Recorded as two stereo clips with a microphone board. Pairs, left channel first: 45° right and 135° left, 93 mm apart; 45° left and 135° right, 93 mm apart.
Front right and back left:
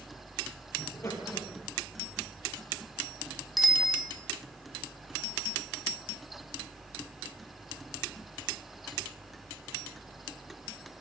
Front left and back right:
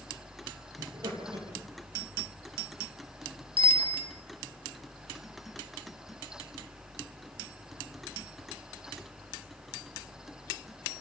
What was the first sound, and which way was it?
Laughter, 105° right.